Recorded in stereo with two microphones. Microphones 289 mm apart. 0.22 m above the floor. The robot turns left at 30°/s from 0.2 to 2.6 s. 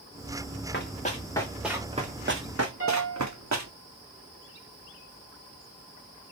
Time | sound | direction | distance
0.7 | running footsteps | 40° left (ahead or behind) | 1.6 m
2.8 | a piano | 50° right (ahead or behind) | 3.5 m